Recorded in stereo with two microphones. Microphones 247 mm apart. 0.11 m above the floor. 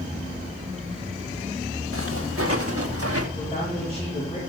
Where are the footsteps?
60° right (ahead or behind), 2.5 m; by 3.2 s 70° right (ahead or behind), 1.7 m.